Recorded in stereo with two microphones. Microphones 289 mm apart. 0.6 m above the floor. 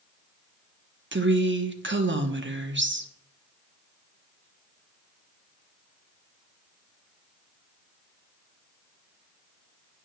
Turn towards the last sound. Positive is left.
turn(degrees=-40)  # may be behind; listen again after turning